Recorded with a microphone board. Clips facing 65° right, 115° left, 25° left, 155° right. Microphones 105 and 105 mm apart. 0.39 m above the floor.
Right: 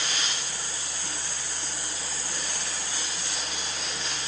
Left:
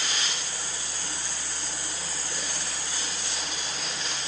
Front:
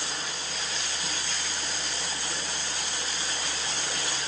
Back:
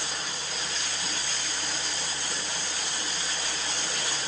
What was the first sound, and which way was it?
Only background noise.